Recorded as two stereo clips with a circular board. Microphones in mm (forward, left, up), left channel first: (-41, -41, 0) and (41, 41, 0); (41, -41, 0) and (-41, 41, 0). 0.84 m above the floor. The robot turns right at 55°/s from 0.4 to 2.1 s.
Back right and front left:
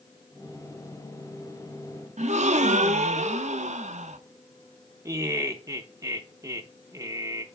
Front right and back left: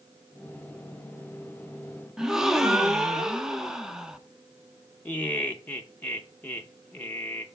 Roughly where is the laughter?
Ahead.